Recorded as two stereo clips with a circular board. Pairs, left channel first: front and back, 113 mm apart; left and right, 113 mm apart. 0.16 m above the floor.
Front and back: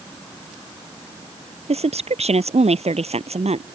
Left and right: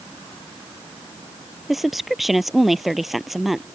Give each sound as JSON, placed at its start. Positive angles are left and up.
{"t": 1.7, "sound": "a woman speaking", "azimuth_deg": 180}